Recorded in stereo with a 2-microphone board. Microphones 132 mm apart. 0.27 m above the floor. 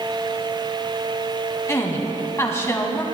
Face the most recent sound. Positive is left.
turn(degrees=20)  # may be behind; listen again after turning